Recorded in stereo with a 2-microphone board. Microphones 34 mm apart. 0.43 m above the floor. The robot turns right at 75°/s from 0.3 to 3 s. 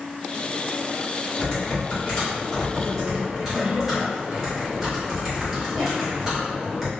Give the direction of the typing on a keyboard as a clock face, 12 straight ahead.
10 o'clock.